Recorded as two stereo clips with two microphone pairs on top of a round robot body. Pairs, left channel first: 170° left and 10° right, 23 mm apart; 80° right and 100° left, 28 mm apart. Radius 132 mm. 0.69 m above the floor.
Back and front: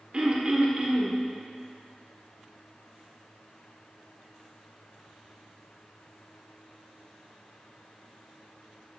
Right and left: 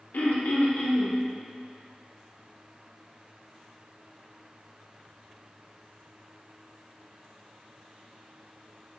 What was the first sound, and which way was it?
Throat clearing, 60° right.